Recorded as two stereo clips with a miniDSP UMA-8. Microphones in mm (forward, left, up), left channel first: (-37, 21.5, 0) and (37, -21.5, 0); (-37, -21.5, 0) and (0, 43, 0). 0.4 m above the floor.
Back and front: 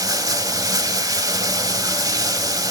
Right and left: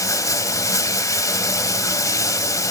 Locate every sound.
0.0 s running water: 75° right, 0.7 m